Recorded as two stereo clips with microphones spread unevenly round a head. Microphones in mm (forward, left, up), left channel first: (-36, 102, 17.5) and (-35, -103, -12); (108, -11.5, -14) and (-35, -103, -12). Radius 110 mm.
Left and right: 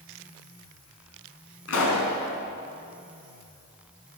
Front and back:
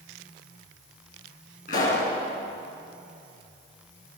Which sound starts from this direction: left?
A pop, at 1.7 s.